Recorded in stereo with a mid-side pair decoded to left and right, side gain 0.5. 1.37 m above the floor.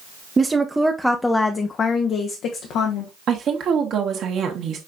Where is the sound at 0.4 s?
25° right, 0.8 m; by 3.1 s 80° left, 1.1 m.